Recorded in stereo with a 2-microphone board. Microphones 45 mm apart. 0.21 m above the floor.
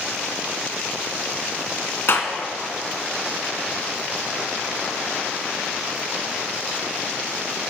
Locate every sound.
2.1 s a clap: 55° left (ahead or behind), 1.6 m